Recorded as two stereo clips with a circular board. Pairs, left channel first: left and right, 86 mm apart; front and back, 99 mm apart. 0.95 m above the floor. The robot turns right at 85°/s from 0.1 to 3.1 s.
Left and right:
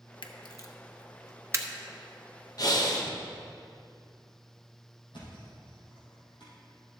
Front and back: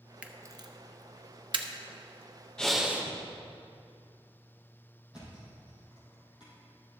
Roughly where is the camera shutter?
Left.